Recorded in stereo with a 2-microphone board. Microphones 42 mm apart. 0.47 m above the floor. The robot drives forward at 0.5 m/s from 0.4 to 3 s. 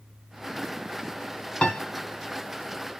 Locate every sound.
1.6 s a piano: 25° left (ahead or behind), 0.7 m